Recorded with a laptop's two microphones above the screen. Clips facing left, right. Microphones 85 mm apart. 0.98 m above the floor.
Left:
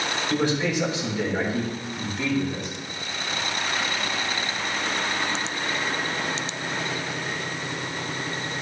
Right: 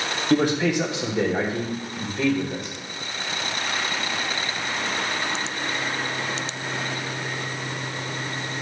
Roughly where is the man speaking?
Right.